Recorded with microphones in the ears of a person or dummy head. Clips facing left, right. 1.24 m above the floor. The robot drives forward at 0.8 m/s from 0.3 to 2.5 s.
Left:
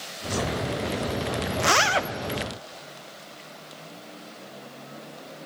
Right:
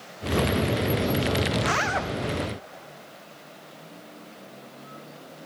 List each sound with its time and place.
1.6 s a zipper: 55° left (ahead or behind), 0.6 m; by 2.1 s 35° left (ahead or behind), 0.9 m